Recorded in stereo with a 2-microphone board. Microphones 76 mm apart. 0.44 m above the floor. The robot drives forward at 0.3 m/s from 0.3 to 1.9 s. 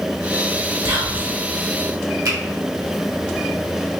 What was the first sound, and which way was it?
Whispering, 45° right (ahead or behind).